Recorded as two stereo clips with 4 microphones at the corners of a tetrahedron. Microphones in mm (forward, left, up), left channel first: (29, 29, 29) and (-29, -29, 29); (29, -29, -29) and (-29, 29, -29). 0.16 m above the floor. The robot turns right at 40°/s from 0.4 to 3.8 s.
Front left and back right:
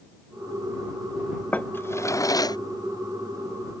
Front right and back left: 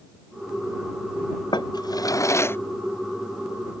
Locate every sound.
1.5 s a drawer: 25° right; by 2.6 s 15° left